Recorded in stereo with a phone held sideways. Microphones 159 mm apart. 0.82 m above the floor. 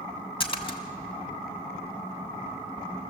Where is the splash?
35° left (ahead or behind), 2.0 m.